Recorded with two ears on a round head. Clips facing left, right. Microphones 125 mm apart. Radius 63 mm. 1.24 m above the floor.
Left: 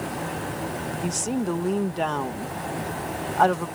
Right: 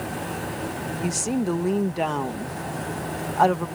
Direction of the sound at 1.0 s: 5° right (ahead or behind).